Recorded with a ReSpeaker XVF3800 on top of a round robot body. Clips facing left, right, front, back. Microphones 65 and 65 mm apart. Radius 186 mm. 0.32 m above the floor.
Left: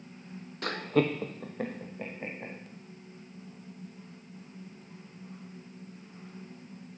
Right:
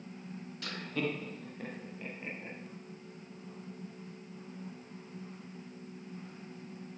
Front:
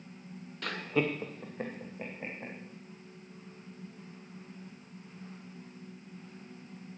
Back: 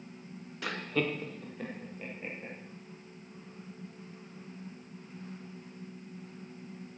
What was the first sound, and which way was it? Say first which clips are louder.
Laughter: left 9 dB, front 1 dB; 100° left.